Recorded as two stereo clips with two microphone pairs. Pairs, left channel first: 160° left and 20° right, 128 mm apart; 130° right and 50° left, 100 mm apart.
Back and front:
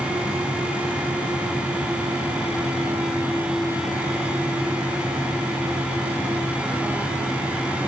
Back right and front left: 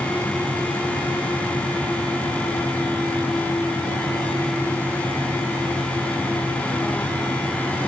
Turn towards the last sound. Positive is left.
No sound to turn to.